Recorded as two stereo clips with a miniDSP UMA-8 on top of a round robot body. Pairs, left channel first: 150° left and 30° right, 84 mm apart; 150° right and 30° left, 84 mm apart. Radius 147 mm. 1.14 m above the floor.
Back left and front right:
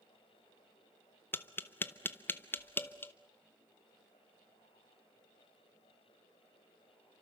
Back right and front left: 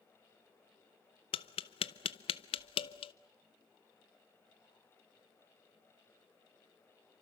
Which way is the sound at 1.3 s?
145° right.